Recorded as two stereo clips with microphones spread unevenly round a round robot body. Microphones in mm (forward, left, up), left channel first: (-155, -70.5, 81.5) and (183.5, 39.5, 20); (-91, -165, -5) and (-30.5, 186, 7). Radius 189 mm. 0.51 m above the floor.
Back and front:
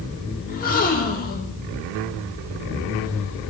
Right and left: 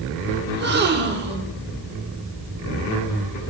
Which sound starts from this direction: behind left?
A gasp, at 0.5 s.